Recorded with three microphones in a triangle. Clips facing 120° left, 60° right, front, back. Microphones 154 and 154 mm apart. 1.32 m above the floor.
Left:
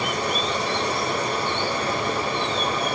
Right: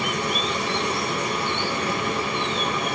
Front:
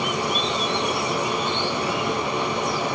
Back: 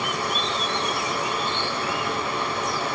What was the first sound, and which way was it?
Running water, 70° left.